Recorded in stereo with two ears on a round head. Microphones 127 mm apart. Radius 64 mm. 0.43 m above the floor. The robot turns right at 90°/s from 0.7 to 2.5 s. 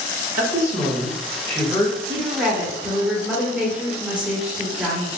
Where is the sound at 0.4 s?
20° right (ahead or behind), 1.3 m; by 2.0 s 25° left (ahead or behind), 1.3 m.